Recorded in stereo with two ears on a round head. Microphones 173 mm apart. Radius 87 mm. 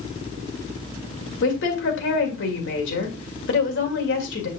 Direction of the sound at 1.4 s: 65° left (ahead or behind).